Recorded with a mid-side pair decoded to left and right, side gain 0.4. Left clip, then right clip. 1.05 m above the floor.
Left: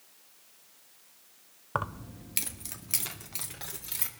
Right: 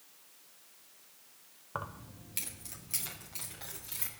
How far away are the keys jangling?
About 0.6 m.